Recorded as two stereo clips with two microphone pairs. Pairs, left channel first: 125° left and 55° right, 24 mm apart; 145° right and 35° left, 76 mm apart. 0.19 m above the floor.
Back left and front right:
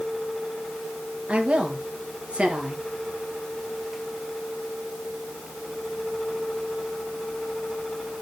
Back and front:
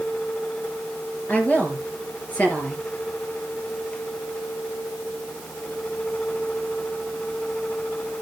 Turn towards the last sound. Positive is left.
turn(degrees=-80)